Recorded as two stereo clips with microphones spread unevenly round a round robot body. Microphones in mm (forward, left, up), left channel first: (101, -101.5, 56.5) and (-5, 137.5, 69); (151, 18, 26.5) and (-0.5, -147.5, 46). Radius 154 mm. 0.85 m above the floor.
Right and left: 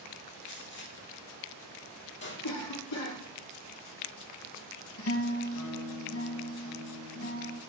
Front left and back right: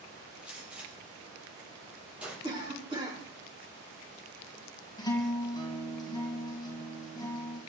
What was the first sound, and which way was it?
A gunshot, 50° right.